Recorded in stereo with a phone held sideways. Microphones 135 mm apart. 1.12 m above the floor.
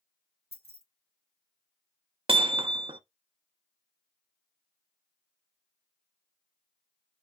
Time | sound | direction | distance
0.5 | keys jangling | 50° left (ahead or behind) | 1.3 m
2.3 | hammering | 45° right (ahead or behind) | 0.5 m